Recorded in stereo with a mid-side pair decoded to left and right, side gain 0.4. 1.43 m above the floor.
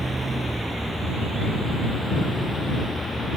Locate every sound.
0.0 s a vehicle: 20° right; by 3.4 s 25° left